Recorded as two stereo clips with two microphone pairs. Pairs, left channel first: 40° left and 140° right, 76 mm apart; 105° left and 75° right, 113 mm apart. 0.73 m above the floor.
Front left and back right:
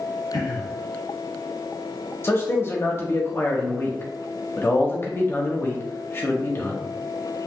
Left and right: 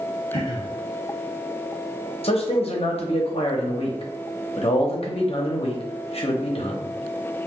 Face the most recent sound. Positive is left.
turn(degrees=95)